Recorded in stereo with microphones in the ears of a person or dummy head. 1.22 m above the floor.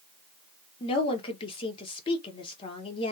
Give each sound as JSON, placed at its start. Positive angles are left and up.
{"t": 0.8, "sound": "a woman speaking", "side_deg": 25, "distance_m": 0.7}